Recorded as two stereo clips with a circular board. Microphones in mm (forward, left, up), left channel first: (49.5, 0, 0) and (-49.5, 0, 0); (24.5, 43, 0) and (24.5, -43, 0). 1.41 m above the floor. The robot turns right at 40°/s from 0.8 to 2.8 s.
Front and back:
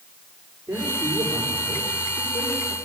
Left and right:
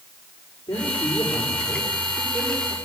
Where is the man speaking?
110° left, 5.5 m; by 2.7 s 170° right, 5.5 m.